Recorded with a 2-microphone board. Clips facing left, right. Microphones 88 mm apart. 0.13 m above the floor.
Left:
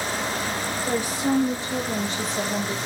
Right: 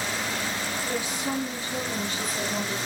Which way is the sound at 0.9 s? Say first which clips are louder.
Left 8 dB; 35° left (ahead or behind).